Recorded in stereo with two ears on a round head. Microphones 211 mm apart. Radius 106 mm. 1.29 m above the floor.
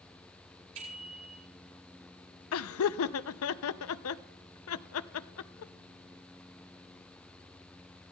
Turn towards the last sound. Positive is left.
turn(degrees=70)  # may be behind; listen again after turning